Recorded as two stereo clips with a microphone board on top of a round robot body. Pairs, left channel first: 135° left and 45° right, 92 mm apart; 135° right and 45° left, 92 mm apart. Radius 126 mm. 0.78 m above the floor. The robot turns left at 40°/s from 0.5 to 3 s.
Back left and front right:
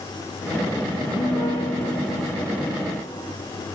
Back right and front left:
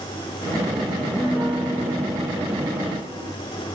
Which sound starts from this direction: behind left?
A piano, at 1.0 s.